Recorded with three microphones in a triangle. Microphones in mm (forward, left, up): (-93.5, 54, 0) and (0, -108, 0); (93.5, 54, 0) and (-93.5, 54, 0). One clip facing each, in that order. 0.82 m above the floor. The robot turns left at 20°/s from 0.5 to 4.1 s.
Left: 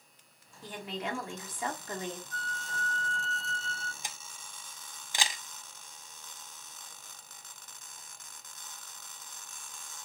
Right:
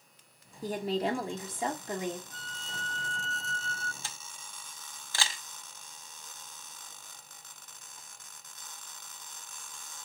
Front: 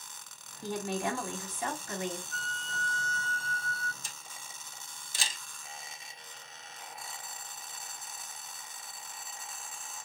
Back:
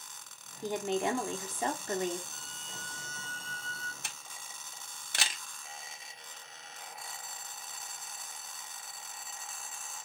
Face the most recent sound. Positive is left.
turn(degrees=-165)